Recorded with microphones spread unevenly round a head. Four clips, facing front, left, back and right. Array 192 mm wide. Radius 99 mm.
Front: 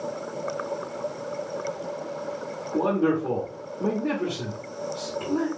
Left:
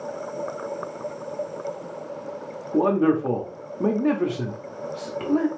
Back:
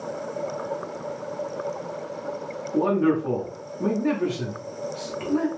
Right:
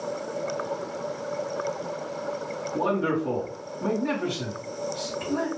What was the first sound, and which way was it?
A man speaking, 85° left.